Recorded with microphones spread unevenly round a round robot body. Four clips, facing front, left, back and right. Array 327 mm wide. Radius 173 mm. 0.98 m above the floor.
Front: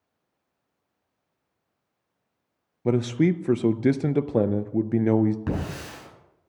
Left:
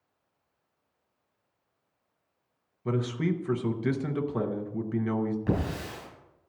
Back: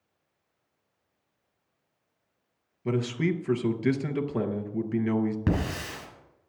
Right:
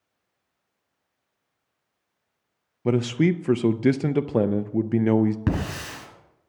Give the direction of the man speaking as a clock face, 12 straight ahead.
2 o'clock.